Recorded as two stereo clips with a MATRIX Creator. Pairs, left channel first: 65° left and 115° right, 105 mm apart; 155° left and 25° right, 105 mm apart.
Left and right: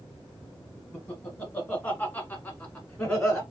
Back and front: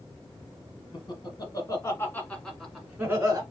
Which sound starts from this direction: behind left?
Laughter, at 0.9 s.